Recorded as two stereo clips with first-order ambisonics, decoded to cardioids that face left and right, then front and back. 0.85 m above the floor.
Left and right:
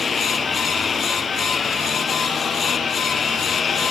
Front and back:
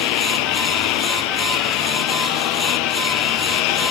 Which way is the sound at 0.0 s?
15° left.